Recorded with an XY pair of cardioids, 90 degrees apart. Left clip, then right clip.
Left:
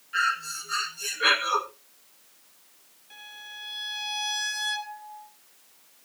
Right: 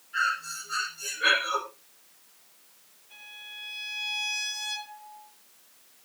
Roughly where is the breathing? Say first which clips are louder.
Left 2 dB; ahead left.